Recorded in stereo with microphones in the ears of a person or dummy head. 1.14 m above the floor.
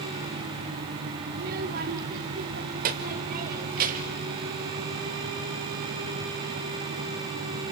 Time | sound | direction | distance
1.3 | a child speaking | 55° right (ahead or behind) | 1.8 m